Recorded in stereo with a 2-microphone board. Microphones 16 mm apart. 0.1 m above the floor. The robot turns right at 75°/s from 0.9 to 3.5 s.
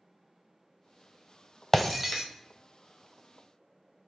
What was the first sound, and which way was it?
Breaking glass, 10° left (ahead or behind).